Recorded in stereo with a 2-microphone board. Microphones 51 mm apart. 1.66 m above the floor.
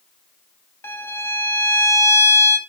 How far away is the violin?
About 1.2 m.